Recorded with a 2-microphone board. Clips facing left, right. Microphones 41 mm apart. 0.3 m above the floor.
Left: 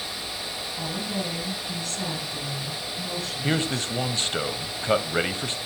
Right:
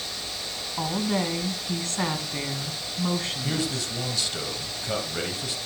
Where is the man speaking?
45° left (ahead or behind), 1.3 m.